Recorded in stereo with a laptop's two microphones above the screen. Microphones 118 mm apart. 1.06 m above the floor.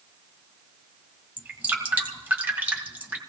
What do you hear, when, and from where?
1.4 s dripping: 15° right (ahead or behind), 1.9 m